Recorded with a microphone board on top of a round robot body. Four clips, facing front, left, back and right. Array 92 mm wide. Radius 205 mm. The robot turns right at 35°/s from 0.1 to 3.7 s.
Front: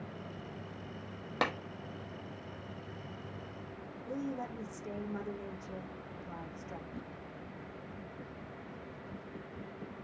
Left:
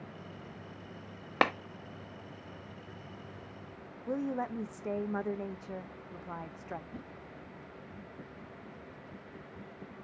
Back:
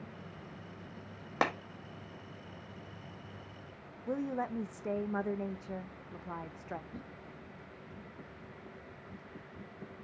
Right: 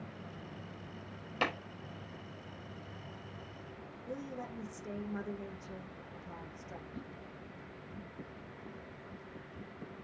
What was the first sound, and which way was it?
A clap, 110° left.